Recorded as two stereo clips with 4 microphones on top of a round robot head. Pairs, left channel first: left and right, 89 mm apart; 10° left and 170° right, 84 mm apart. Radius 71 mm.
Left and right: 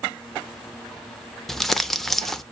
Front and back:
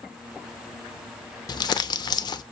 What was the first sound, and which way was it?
Crumpling, 5° left.